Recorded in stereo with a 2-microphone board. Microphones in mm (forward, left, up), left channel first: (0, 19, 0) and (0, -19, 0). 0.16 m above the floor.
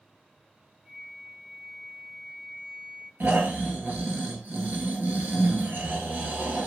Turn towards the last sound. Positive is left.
turn(degrees=-70)  # may be behind; listen again after turning